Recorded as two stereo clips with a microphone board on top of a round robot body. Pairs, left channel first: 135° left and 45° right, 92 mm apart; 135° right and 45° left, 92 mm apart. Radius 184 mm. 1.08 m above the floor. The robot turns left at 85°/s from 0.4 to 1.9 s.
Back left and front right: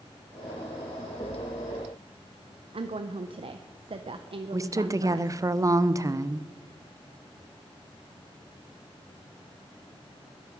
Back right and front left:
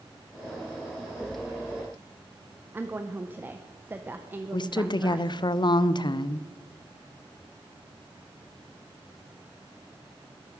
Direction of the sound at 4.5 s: 100° right.